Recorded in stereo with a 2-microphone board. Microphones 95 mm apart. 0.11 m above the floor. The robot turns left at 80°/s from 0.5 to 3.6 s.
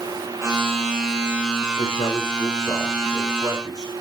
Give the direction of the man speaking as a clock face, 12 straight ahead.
9 o'clock.